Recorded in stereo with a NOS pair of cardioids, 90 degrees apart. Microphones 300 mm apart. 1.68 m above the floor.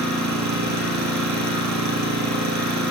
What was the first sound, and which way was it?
An engine running, 70° right.